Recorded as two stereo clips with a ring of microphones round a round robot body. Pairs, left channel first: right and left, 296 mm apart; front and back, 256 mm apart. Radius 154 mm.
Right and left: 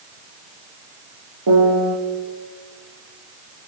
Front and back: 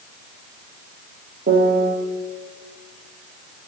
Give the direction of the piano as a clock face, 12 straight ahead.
8 o'clock.